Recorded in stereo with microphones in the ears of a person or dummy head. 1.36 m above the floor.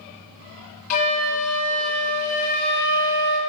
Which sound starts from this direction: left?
A flute, at 0.9 s.